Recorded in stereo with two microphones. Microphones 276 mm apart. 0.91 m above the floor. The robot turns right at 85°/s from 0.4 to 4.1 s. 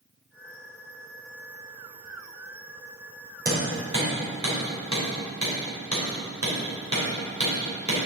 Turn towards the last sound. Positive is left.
turn(degrees=-85)